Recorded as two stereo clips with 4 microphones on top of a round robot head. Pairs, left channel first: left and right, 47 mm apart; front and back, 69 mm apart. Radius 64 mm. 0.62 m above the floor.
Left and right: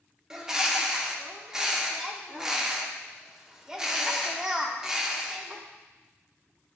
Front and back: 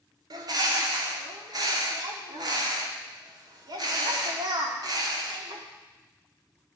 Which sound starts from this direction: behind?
A bird, at 0.3 s.